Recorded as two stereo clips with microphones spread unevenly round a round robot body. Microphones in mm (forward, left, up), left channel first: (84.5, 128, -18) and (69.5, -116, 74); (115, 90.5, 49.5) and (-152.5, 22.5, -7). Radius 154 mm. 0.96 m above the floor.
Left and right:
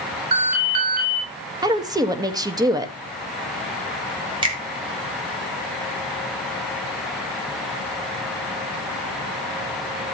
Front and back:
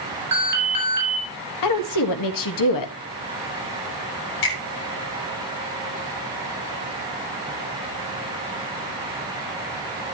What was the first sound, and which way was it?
An alarm, 135° right.